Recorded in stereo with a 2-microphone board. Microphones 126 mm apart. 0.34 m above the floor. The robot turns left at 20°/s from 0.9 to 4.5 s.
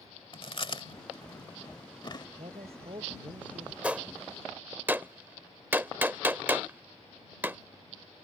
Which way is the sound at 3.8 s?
10° right (ahead or behind).